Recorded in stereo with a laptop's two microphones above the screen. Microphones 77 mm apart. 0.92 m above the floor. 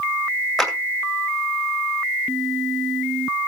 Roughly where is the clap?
Centre.